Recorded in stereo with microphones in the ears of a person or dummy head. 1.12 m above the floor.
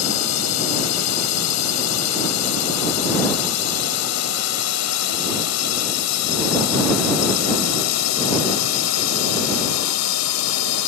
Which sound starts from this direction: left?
A drone, at 0.0 s.